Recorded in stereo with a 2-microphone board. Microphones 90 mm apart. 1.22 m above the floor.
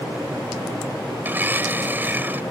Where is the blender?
20° right (ahead or behind).